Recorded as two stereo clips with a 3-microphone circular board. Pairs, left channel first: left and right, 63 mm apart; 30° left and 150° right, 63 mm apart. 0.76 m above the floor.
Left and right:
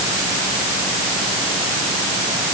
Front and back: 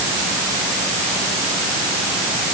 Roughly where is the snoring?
I don't hear snoring.